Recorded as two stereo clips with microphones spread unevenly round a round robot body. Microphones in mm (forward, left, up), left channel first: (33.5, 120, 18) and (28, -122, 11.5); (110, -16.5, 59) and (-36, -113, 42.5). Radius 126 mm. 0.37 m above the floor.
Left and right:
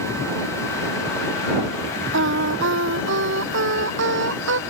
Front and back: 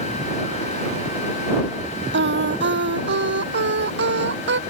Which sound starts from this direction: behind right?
Singing, at 2.1 s.